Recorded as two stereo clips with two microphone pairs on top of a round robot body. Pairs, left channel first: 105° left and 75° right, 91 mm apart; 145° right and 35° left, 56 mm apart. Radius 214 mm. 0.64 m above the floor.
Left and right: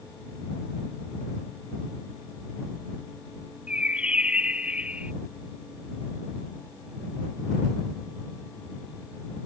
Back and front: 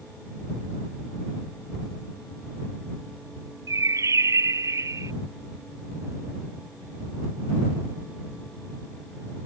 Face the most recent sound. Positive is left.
turn(degrees=5)